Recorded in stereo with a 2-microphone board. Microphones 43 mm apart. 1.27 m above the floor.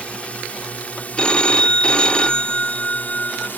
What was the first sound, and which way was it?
A drone, 30° left (ahead or behind).